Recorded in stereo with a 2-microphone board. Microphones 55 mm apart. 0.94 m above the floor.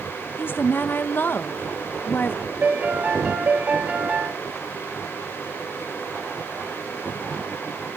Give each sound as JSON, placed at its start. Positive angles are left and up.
{"t": 0.4, "sound": "a woman speaking", "side_deg": 35, "distance_m": 0.7}
{"t": 2.6, "sound": "a piano", "side_deg": -30, "distance_m": 1.8}